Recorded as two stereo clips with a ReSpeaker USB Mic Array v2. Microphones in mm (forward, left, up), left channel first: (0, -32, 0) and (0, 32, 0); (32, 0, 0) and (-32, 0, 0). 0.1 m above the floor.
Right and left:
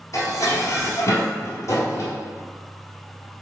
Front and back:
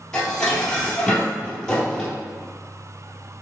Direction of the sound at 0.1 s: 75° right.